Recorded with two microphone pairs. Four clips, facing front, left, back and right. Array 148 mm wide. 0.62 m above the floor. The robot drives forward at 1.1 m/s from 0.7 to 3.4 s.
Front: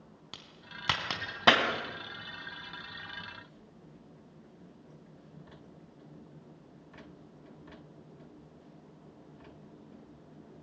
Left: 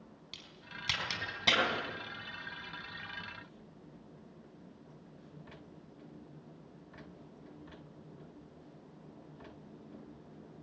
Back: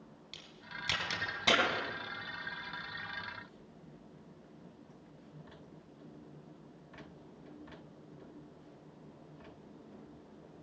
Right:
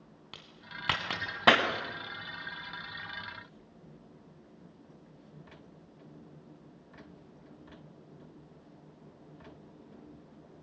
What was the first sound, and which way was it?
A crack, 40° right.